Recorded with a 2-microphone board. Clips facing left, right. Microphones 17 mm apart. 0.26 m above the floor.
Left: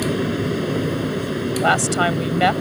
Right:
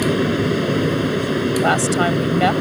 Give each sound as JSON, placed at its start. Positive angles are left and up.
{"t": 0.0, "sound": "an aircraft", "side_deg": -15}
{"t": 1.6, "sound": "a woman speaking", "side_deg": 10}